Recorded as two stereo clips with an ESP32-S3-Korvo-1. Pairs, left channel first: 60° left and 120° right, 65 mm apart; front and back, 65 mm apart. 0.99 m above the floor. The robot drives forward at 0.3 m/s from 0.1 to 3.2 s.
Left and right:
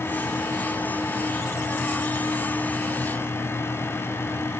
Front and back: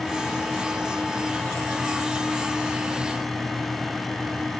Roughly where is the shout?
No shout in this recording.